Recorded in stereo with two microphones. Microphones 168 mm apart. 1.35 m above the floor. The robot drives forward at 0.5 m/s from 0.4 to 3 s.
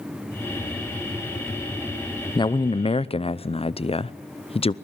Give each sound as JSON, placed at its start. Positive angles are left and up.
{"t": 2.4, "sound": "a man speaking", "side_deg": 25, "distance_m": 0.7}